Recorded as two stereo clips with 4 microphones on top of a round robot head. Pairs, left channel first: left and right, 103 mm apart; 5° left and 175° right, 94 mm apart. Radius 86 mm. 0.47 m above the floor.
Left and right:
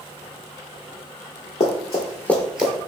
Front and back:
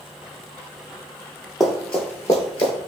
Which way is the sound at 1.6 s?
95° left.